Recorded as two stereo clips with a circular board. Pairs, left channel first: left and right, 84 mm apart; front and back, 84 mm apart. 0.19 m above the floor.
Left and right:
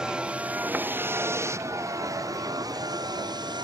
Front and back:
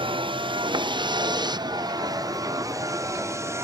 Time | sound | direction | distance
0.0 | a vehicle | 170° right | ?